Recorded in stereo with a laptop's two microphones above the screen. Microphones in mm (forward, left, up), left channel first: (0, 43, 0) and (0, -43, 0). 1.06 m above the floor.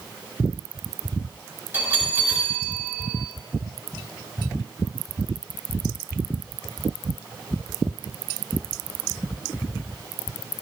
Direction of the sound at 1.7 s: 20° right (ahead or behind).